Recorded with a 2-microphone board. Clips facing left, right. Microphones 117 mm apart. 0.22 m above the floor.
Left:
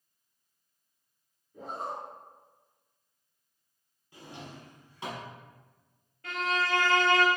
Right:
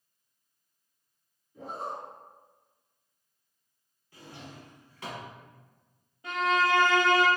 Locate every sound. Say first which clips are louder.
1.5 s a zipper: even; 45° left (ahead or behind), 1.6 m
4.1 s a drawer: left 1 dB; 20° left (ahead or behind), 0.8 m
6.2 s a violin: right 5 dB; 15° right (ahead or behind), 0.7 m